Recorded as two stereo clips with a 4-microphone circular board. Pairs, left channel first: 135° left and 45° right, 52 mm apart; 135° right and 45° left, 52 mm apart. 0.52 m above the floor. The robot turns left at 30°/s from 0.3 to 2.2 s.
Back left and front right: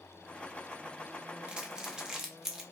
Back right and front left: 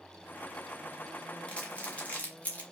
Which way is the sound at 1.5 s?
95° right.